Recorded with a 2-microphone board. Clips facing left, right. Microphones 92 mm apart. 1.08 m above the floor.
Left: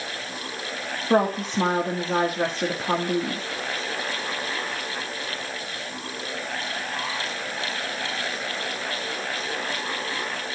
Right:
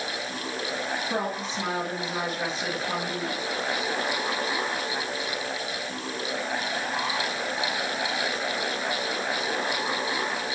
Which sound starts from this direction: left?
A woman speaking, at 1.1 s.